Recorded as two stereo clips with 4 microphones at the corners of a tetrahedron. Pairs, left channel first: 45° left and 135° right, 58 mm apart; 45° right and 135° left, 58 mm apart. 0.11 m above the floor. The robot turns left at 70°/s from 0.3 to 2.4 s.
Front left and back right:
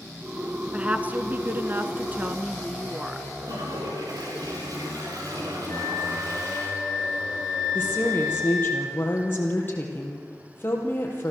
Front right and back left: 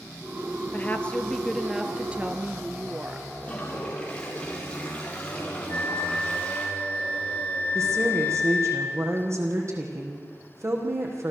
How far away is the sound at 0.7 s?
About 1.2 m.